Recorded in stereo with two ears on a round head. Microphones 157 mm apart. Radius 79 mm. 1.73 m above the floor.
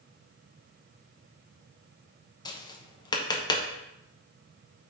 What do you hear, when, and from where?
2.5 s tapping: 25° left (ahead or behind), 0.9 m